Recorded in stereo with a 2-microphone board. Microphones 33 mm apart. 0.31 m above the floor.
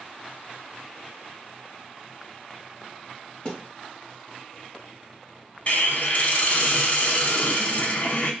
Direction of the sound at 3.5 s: 25° left (ahead or behind).